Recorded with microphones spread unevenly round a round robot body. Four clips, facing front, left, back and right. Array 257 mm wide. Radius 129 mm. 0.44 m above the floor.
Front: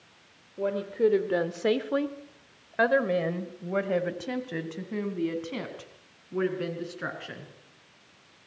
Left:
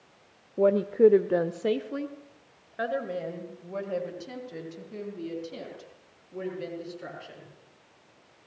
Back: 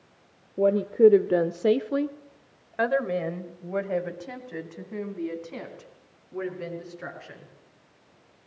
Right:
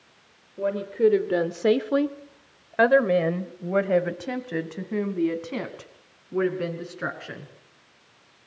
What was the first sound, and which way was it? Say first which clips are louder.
A woman speaking: left 3 dB, back 7 dB; 155° left.